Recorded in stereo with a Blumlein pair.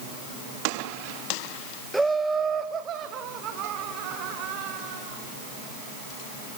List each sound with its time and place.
1.9 s laughter: straight ahead, 0.7 m; by 5.2 s 40° right, 4 m